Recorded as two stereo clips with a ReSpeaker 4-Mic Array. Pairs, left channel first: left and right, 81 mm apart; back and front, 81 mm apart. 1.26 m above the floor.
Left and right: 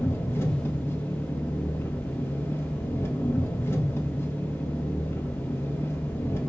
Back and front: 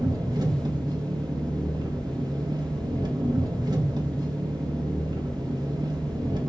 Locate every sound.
0.0 s an engine running: 30° left, 1.9 m